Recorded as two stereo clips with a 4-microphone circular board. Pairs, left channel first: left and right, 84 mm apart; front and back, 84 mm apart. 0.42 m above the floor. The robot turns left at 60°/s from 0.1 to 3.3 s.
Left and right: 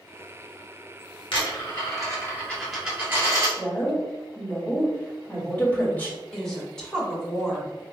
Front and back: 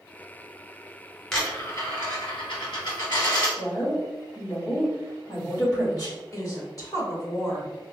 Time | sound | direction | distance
1.3 | a dropped coin | 85° left | 1.7 m
3.6 | a woman speaking | 25° left | 1.5 m
6.3 | a woman speaking | 10° left | 1.2 m